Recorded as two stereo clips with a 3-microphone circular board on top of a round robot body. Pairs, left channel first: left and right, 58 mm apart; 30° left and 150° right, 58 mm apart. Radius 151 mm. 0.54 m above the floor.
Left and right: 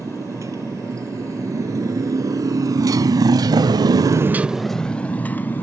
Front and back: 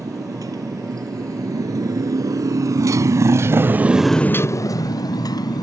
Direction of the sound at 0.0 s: 130° right.